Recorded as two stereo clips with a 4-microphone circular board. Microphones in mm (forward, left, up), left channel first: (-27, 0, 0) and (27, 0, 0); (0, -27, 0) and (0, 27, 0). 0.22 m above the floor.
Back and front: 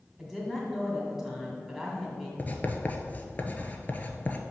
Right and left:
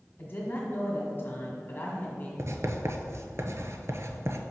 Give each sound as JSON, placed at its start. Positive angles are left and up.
{"t": 0.2, "sound": "a woman speaking", "azimuth_deg": -85, "distance_m": 1.9}
{"t": 2.4, "sound": "writing", "azimuth_deg": 125, "distance_m": 0.7}